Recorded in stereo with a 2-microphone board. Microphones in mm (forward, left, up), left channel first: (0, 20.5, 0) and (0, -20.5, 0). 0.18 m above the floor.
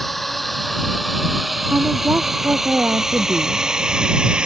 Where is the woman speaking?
50° right (ahead or behind).